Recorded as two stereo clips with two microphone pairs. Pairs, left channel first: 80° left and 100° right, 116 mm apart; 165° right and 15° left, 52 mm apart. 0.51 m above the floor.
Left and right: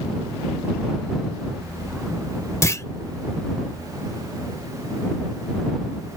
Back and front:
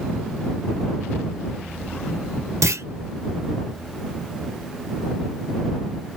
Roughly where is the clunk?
Ahead.